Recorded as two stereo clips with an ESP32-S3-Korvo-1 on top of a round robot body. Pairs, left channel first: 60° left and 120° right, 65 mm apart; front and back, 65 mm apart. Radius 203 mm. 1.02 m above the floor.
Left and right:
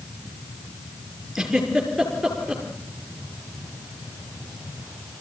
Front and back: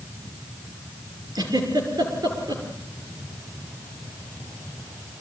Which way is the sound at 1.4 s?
155° left.